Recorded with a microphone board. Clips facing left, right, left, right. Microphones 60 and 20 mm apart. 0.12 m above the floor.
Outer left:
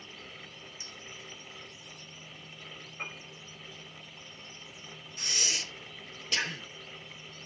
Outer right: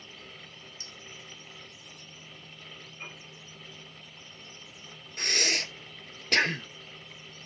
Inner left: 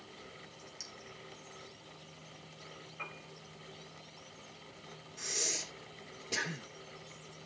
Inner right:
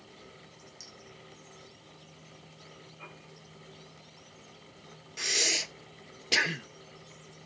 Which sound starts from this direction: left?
A piano, at 3.0 s.